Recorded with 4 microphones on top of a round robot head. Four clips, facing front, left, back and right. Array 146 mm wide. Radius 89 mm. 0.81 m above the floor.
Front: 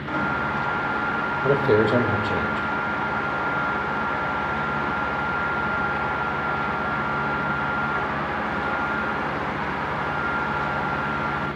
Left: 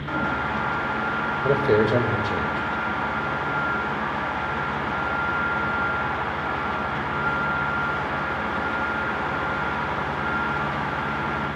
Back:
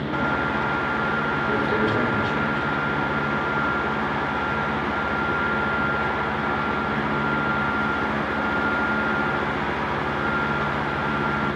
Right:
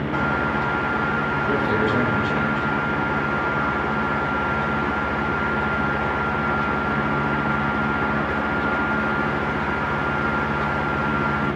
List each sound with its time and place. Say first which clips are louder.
1.4 s a man speaking: left 4 dB, front 7 dB; 40° left, 4 m